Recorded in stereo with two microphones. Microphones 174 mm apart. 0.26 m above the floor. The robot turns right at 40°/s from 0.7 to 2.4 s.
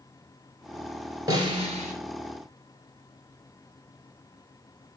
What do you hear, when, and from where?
1.3 s a snare drum: 20° right (ahead or behind), 2.5 m; by 1.9 s 45° right (ahead or behind), 2.5 m